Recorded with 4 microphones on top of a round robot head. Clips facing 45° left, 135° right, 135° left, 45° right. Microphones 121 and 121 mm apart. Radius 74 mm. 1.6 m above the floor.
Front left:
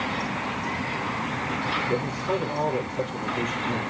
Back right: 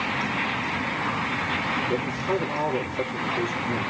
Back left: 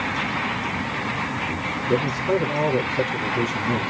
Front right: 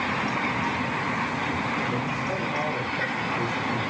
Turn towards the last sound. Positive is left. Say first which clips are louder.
# even, back left 7 dB
turn(degrees=135)